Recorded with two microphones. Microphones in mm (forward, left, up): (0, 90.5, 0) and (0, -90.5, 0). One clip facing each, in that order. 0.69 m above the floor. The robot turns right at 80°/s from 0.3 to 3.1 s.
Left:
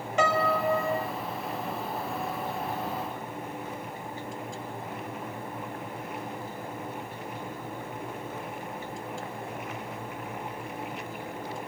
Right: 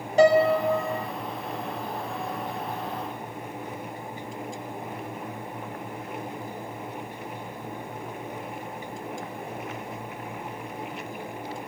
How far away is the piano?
About 0.7 m.